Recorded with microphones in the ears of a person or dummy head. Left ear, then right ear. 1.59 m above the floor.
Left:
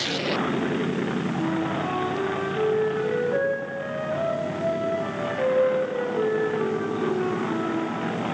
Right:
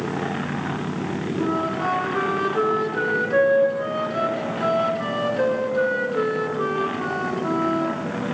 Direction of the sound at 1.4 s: 50° right (ahead or behind).